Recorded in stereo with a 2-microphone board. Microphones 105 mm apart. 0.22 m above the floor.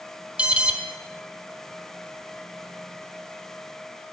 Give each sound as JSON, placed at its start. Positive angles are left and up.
{"t": 0.4, "sound": "an alarm", "side_deg": -10, "distance_m": 1.3}